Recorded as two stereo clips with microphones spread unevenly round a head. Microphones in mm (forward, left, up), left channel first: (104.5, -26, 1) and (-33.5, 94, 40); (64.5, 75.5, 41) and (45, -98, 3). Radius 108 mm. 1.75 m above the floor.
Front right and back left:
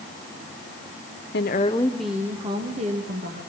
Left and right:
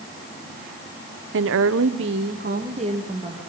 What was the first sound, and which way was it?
A woman speaking, 85° right.